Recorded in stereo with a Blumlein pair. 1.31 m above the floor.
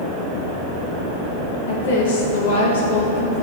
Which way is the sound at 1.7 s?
65° left.